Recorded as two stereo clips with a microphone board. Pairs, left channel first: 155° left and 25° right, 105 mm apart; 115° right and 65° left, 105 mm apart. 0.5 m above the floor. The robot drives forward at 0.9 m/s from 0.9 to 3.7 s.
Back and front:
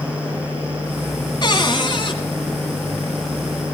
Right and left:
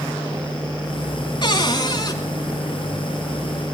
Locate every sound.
1.4 s a cupboard door: 155° right, 1.8 m; by 2.2 s 165° right, 2.5 m